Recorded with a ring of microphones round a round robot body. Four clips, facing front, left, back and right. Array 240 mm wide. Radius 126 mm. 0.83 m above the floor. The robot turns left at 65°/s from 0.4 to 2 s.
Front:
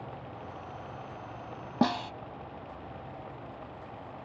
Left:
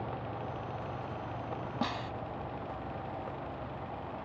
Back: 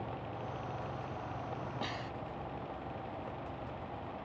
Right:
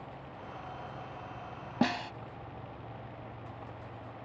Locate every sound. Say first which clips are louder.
1.8 s a snare drum: right 6 dB, front 12 dB; 25° right; by 2.1 s 35° right